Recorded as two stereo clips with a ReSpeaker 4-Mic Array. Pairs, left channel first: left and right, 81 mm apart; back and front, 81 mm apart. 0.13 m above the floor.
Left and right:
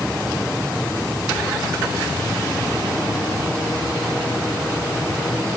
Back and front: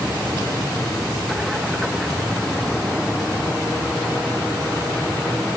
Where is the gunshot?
I don't hear a gunshot.